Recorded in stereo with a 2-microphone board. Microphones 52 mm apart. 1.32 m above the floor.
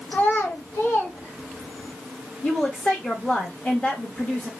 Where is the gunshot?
I don't hear a gunshot.